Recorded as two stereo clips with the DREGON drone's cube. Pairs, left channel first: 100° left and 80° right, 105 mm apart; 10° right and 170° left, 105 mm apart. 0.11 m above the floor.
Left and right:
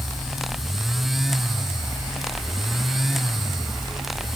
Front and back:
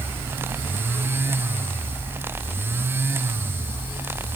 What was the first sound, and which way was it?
Only background noise.